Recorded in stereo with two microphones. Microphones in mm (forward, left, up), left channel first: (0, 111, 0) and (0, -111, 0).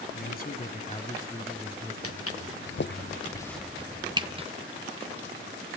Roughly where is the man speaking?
Left.